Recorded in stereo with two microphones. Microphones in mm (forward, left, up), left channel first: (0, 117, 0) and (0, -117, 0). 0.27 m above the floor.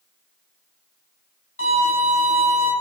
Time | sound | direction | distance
1.6 | a violin | 60° left (ahead or behind) | 1.4 m